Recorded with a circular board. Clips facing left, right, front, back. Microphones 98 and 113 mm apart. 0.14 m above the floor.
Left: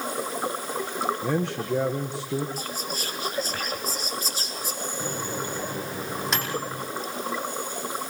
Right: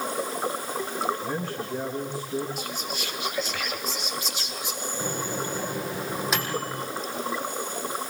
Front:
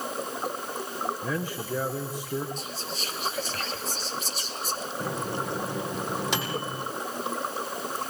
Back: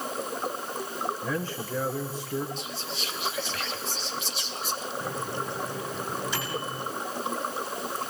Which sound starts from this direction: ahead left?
Whispering, at 2.6 s.